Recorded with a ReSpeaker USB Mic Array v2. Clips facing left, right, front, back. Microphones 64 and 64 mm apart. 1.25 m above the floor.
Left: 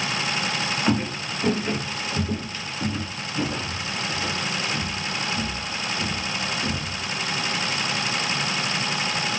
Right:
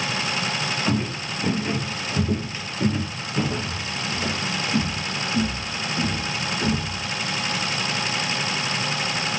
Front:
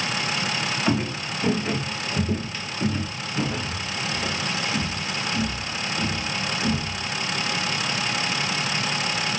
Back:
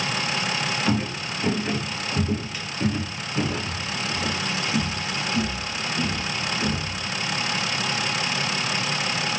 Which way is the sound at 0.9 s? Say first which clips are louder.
Left 1 dB, front 1 dB; 55° left.